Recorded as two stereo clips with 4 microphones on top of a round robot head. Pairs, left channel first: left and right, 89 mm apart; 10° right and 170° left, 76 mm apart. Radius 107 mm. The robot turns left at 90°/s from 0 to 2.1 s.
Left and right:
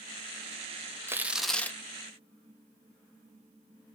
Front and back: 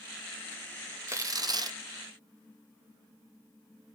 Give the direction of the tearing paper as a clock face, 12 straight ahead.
5 o'clock.